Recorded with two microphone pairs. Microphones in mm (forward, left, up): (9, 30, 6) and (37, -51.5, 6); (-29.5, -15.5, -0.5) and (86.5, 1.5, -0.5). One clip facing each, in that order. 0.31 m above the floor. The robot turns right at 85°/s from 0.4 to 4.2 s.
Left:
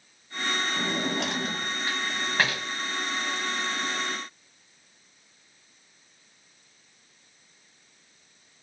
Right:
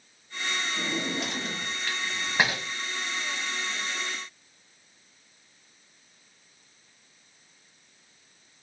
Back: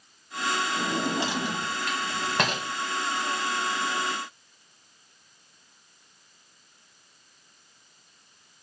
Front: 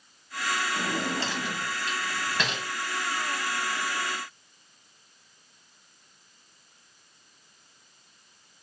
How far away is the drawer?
About 0.8 m.